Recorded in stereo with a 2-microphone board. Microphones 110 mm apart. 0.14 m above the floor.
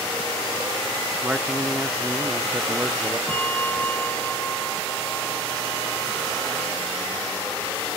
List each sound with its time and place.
1.2 s a man speaking: 15° right (ahead or behind); by 3.2 s centre (ahead or behind)
3.3 s a bell: 15° left (ahead or behind)